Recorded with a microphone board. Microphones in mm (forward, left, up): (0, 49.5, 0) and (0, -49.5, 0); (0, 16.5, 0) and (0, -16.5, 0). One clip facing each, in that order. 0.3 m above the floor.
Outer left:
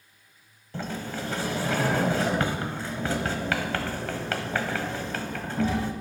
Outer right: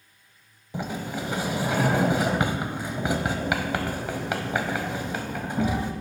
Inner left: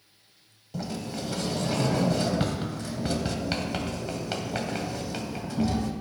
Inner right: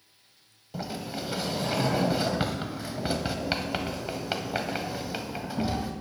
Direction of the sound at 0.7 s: 15° right (ahead or behind).